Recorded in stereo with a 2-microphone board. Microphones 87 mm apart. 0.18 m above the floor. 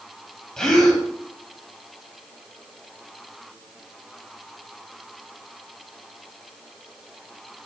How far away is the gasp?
About 4 m.